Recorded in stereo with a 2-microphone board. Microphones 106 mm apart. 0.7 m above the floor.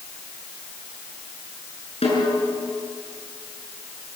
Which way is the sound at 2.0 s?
85° left.